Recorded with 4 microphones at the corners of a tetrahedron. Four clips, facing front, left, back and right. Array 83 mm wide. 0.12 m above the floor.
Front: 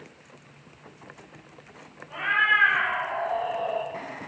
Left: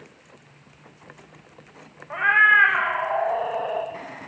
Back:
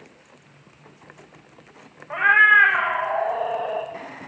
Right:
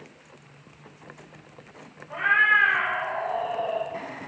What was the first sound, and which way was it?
A cat meowing, 145° left.